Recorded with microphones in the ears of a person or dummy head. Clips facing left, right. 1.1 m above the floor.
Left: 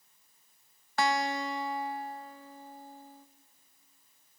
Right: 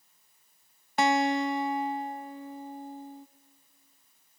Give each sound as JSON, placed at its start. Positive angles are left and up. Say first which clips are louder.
{"t": 1.0, "sound": "a guitar", "louder": "right 5 dB", "side_deg": -15, "distance_m": 0.5}